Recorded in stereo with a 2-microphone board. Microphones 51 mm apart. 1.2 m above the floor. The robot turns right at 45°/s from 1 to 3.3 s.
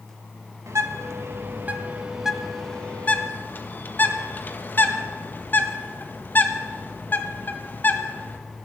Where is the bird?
65° right (ahead or behind), 1.4 m; by 8.4 s 40° left (ahead or behind), 1.4 m.